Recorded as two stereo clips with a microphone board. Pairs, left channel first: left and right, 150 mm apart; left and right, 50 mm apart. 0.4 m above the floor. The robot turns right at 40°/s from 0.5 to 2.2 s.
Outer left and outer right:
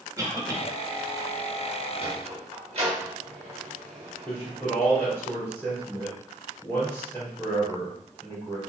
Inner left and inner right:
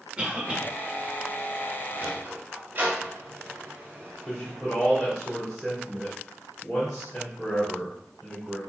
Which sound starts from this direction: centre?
A man speaking, at 4.2 s.